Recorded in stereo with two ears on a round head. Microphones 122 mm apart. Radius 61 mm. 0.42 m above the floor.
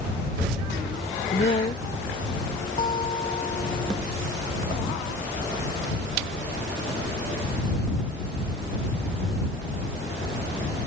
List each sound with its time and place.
1.3 s a woman speaking: 40° left (ahead or behind)
2.8 s a guitar: 35° left (ahead or behind)